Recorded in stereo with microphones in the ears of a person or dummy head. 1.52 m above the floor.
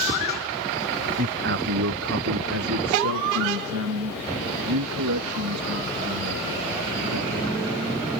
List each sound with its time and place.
1.2 s a man speaking: 40° right (ahead or behind); by 8.1 s 90° right